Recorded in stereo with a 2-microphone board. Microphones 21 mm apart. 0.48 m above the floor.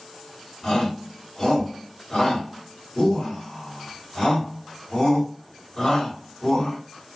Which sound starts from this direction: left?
A shout, at 0.6 s.